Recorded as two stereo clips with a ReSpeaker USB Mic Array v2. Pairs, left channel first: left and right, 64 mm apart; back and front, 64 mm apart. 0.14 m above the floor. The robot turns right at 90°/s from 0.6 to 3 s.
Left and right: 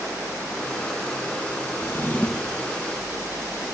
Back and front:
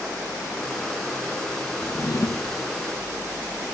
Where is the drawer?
125° left, 0.8 m; by 2.7 s 155° right, 0.8 m.